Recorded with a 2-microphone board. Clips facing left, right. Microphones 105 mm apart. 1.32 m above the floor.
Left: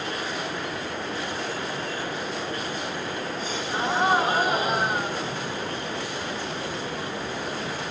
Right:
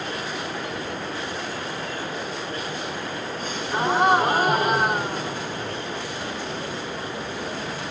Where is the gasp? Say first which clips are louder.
Right 4 dB; 60° right (ahead or behind), 2.5 m.